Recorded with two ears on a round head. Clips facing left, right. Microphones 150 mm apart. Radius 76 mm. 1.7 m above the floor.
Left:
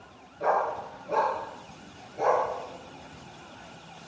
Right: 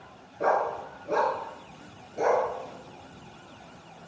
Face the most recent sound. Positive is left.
turn(degrees=-60)  # may be behind; listen again after turning